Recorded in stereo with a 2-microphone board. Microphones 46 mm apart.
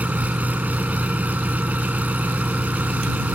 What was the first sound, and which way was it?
An engine running, 35° right (ahead or behind).